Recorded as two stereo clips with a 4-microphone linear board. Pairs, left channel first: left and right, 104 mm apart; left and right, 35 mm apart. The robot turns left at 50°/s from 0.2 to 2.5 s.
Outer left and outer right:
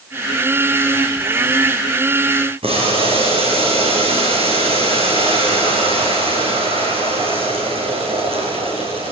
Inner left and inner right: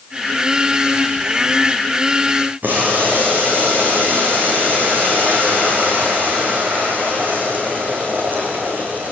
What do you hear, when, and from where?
2.6 s boiling: 70° right (ahead or behind), 6 m